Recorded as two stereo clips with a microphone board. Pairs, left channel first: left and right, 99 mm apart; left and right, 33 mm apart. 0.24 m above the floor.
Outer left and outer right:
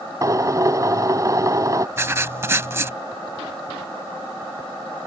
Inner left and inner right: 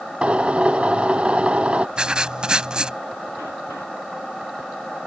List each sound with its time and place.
0.2 s a drill: 35° right (ahead or behind)
2.0 s writing: 25° right (ahead or behind)